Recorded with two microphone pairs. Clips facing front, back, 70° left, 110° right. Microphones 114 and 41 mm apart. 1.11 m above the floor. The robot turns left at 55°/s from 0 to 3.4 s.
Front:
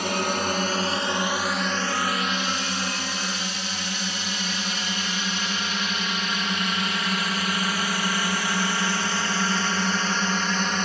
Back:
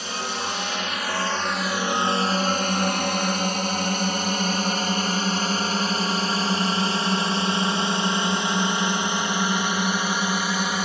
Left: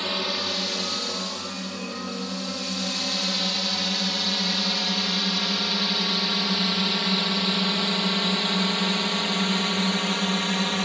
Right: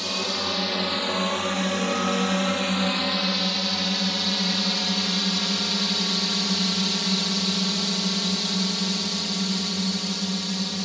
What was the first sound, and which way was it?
A drone, 5° left.